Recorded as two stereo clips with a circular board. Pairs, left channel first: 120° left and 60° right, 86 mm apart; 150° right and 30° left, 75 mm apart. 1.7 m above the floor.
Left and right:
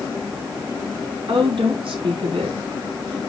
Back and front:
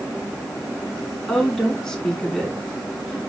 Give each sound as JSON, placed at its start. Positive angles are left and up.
{"t": 1.3, "sound": "a woman speaking", "azimuth_deg": -70, "distance_m": 3.5}